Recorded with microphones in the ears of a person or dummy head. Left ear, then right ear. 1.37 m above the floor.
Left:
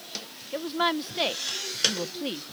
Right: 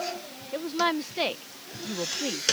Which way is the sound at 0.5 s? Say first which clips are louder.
Even; 5° left (ahead or behind).